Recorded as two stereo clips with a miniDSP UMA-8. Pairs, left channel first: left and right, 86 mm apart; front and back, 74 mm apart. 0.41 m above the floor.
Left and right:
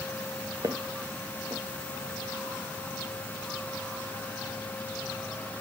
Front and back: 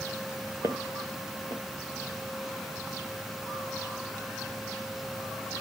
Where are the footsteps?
135° right, 1.8 m.